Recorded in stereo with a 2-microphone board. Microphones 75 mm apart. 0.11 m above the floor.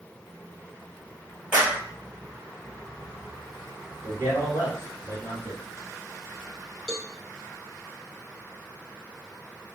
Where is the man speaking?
40° right (ahead or behind), 1.9 m.